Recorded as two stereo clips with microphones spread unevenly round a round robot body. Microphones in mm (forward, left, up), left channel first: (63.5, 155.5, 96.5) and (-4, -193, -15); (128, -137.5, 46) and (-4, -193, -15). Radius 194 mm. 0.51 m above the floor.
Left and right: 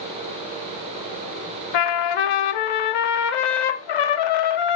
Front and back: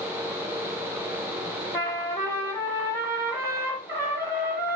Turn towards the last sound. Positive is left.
turn(degrees=100)